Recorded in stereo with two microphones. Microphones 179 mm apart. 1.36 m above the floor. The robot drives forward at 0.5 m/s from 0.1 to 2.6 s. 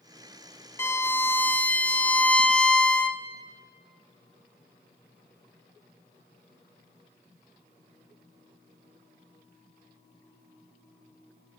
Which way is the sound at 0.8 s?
15° left (ahead or behind).